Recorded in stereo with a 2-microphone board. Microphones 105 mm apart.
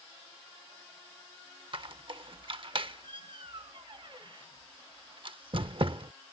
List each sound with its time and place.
1.7 s a squeak: 50° right (ahead or behind)